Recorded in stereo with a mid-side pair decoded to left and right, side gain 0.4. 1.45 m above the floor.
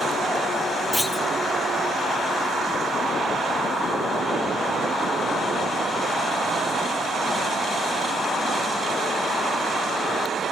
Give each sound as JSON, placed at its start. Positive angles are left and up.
{"t": 0.9, "sound": "a clunk", "azimuth_deg": 5, "distance_m": 5.5}